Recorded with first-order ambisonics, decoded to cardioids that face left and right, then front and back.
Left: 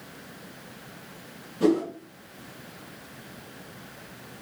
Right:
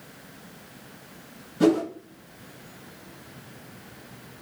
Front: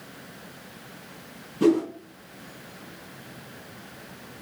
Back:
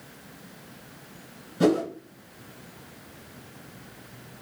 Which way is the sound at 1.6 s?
150° right.